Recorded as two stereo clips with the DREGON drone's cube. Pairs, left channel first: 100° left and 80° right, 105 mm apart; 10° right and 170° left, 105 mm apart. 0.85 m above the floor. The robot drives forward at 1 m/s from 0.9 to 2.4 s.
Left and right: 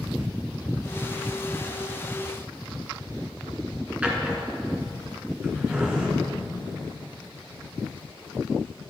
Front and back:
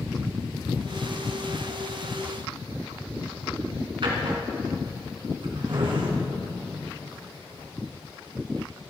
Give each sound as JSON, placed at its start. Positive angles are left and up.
{"t": 4.0, "sound": "a drawer", "azimuth_deg": -155, "distance_m": 2.5}